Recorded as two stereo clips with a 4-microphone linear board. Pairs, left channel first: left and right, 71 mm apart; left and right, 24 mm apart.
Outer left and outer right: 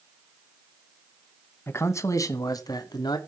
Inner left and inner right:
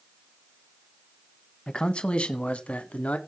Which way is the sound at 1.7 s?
30° left (ahead or behind).